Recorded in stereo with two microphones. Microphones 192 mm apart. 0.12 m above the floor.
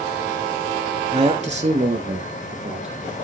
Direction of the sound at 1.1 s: 35° right (ahead or behind).